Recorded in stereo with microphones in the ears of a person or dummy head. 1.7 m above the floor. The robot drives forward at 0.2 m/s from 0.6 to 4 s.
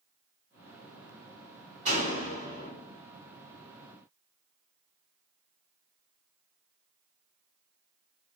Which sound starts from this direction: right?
A door slam, at 1.9 s.